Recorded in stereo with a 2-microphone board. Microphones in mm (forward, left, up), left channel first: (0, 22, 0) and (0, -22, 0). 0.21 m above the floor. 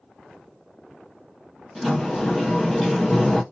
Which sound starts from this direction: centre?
A sliding door, at 1.8 s.